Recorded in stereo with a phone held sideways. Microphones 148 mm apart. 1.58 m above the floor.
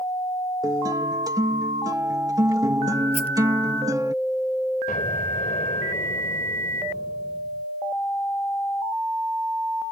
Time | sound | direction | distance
0.6 | a guitar | 25° right (ahead or behind) | ?
3.1 | a rattle | 45° left (ahead or behind) | ?
4.9 | an explosion | 75° left (ahead or behind) | ?